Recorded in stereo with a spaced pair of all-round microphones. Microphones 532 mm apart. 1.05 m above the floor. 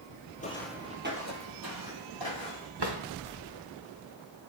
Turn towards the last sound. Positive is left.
turn(degrees=-50)  # may be behind; listen again after turning